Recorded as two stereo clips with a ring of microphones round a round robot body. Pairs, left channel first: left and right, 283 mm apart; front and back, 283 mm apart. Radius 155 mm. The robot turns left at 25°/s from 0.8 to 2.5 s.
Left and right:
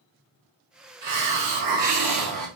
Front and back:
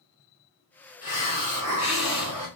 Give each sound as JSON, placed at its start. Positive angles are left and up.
{"t": 1.0, "sound": "a hiss", "azimuth_deg": -65, "distance_m": 1.9}